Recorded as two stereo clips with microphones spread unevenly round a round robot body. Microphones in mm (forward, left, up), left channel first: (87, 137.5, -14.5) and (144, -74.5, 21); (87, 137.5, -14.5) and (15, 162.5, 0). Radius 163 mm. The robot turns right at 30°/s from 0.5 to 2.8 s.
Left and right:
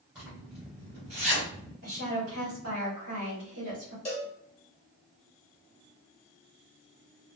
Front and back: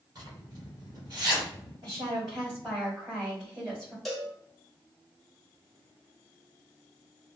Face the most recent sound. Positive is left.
turn(degrees=60)